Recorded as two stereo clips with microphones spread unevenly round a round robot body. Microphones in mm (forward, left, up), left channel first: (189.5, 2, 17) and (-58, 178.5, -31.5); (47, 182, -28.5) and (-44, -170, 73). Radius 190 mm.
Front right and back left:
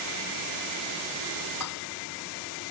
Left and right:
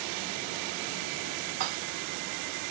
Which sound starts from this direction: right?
Dishes clattering, at 1.6 s.